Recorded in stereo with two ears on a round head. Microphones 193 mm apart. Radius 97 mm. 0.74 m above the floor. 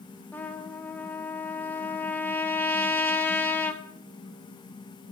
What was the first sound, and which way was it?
A trumpet, 10° left (ahead or behind).